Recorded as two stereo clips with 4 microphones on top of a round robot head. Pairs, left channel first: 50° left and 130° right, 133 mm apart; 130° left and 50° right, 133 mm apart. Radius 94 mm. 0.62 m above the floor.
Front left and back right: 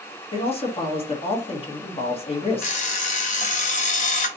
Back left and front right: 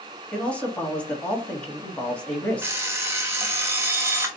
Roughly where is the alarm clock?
Ahead left.